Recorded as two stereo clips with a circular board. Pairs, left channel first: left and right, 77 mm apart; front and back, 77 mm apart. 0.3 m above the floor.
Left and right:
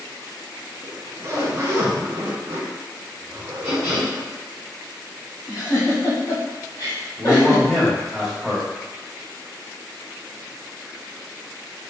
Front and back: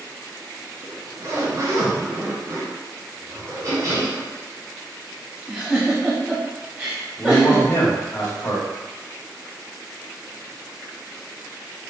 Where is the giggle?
110° left, 1.5 m.